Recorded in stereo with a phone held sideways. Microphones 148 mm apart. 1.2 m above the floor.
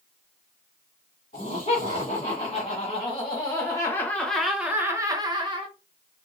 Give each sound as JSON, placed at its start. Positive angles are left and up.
{"t": 1.3, "sound": "laughter", "side_deg": 65, "distance_m": 1.7}